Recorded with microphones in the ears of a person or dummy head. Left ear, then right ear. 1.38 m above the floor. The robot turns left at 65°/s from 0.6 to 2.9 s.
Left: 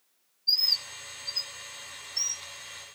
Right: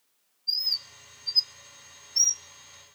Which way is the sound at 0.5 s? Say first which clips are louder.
Left 3 dB; 5° left (ahead or behind).